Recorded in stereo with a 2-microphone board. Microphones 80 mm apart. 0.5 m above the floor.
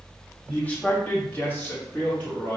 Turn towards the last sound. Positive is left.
turn(degrees=20)  # may be behind; listen again after turning